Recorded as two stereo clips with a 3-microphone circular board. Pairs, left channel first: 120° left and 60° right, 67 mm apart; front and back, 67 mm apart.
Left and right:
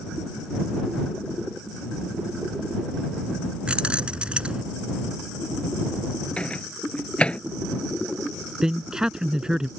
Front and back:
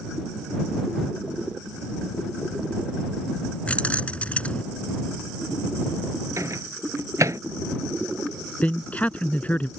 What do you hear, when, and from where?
3.7 s keys jangling: 20° right
6.4 s a microwave: 170° right
8.6 s a man speaking: straight ahead